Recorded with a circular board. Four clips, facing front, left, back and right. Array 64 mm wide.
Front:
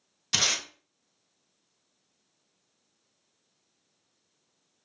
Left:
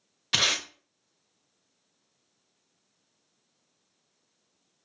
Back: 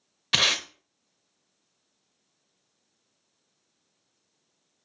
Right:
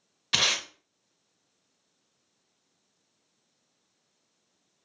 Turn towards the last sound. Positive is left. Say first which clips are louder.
# even, back 5 dB
turn(degrees=180)